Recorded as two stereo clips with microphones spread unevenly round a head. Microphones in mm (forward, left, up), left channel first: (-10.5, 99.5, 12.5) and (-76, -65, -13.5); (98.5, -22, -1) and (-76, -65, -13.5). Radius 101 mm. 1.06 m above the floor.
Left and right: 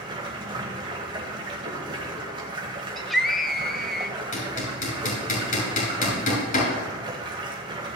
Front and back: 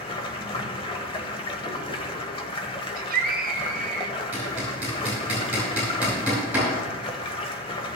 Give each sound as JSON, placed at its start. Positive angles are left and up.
{"t": 0.0, "sound": "running water", "azimuth_deg": -40, "distance_m": 1.3}
{"t": 3.0, "sound": "a scream", "azimuth_deg": 165, "distance_m": 0.9}
{"t": 4.3, "sound": "hammering", "azimuth_deg": 110, "distance_m": 5.0}